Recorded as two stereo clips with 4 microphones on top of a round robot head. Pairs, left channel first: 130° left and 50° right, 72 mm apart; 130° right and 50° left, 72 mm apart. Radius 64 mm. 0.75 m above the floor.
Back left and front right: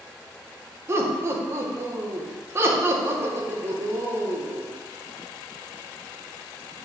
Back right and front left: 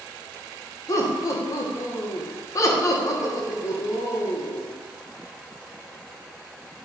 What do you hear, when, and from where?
0.9 s laughter: 100° right, 1.7 m